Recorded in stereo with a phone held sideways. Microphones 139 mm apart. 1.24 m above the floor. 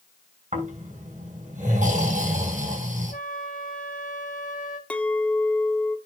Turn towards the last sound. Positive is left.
turn(degrees=10)  # may be behind; listen again after turning